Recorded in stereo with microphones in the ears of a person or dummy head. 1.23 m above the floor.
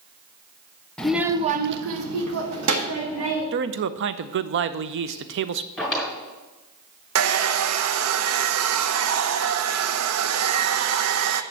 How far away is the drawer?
About 1.8 m.